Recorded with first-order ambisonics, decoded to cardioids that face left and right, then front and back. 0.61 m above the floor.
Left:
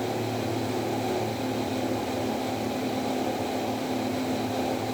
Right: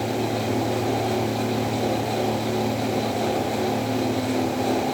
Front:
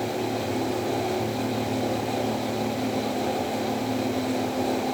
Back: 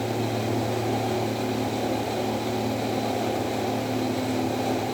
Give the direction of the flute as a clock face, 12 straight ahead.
I don't hear a flute.